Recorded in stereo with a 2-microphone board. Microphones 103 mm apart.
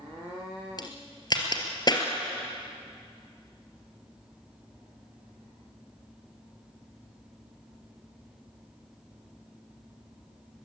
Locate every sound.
0.8 s a crack: 45° left (ahead or behind), 3 m